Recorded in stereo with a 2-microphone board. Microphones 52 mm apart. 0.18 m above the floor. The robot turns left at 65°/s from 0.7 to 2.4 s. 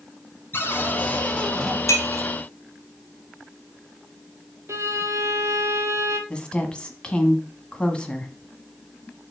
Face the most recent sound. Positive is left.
turn(degrees=20)  # may be behind; listen again after turning